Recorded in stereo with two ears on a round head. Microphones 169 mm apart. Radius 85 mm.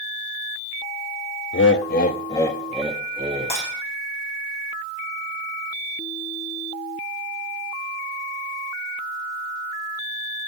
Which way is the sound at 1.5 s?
70° left (ahead or behind).